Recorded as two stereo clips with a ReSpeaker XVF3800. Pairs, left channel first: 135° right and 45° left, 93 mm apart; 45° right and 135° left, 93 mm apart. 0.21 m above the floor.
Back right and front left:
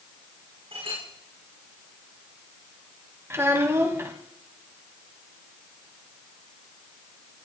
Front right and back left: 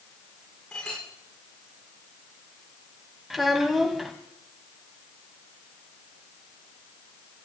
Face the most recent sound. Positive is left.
turn(degrees=50)